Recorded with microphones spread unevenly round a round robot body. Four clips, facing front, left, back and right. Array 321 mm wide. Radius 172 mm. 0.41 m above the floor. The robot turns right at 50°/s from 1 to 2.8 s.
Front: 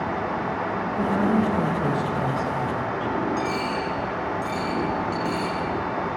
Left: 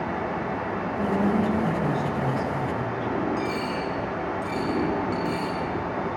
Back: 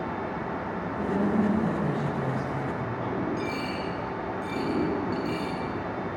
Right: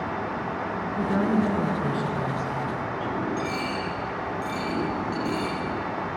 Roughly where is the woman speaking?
Ahead right.